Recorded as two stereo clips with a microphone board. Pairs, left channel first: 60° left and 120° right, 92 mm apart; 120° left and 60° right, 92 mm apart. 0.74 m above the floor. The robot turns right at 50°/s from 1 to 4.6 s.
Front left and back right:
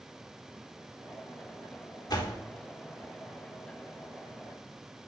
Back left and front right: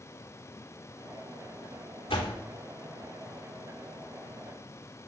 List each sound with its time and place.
2.1 s a door slam: 105° left, 1.3 m; by 2.4 s 120° left, 1.3 m